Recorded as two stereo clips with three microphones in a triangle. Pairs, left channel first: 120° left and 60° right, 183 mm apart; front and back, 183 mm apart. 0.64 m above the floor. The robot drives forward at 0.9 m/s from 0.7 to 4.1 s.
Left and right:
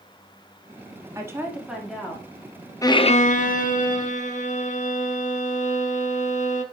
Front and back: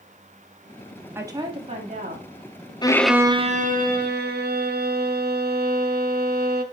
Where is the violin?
55° left, 0.5 m; by 6.6 s 160° left, 1.1 m.